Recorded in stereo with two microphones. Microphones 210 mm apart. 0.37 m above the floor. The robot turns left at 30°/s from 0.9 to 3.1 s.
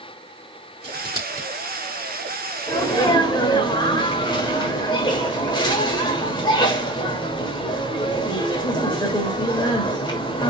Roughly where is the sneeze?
Centre.